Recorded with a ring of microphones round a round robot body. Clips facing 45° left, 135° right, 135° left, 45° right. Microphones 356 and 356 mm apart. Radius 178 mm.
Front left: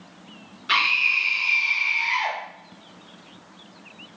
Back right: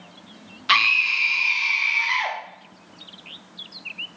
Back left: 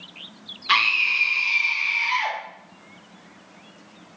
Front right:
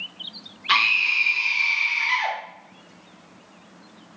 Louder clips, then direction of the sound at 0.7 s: Back right 2 dB, even; 130° right.